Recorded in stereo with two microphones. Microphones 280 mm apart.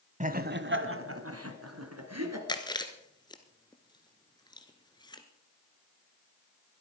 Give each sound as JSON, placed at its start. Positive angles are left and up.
{"t": 0.2, "sound": "laughter", "side_deg": -25, "distance_m": 1.3}
{"t": 2.5, "sound": "chewing", "side_deg": 15, "distance_m": 1.4}